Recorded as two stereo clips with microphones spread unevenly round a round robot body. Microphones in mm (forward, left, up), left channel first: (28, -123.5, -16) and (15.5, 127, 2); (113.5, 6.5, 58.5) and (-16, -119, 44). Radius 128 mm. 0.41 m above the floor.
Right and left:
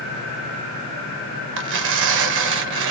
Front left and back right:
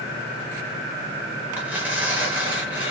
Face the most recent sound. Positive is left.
turn(degrees=140)